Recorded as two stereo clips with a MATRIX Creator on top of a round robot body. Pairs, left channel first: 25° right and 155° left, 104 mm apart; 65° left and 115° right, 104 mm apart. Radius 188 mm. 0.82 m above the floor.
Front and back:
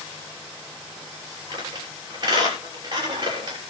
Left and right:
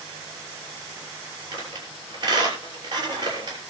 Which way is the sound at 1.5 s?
155° right.